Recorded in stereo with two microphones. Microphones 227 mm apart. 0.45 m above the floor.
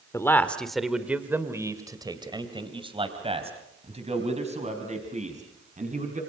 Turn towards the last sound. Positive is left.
turn(degrees=-30)  # may be behind; listen again after turning